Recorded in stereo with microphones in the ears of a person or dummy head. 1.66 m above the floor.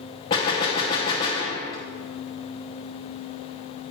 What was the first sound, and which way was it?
A gunshot, 20° left (ahead or behind).